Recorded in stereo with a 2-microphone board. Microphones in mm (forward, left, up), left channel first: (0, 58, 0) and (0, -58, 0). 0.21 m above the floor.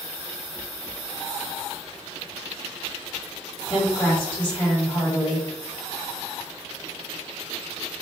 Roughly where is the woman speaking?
Left.